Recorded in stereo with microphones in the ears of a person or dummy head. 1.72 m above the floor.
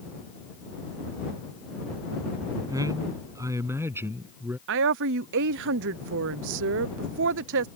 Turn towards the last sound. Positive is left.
turn(degrees=-65)  # may be behind; listen again after turning